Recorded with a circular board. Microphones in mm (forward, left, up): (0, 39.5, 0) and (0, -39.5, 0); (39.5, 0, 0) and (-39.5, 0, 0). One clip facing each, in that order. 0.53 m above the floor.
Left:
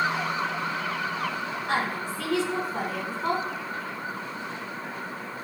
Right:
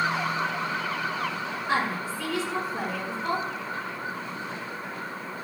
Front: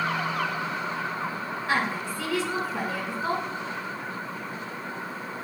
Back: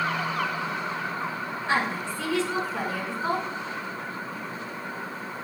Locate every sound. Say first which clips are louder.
1.7 s a woman speaking: right 1 dB, back 1 dB; 80° left, 5.5 m